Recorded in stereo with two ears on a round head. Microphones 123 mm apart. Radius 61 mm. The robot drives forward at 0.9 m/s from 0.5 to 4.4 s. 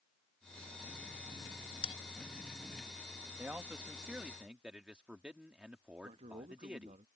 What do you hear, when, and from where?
1.8 s a bell: 45° left (ahead or behind); by 1.9 s 40° left (ahead or behind)
3.4 s a man speaking: 10° right (ahead or behind)
6.0 s a man speaking: 45° right (ahead or behind)